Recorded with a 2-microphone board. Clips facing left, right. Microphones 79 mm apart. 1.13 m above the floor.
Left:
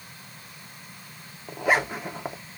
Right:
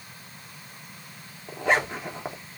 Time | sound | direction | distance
1.5 | a zipper | 5° left (ahead or behind) | 0.7 m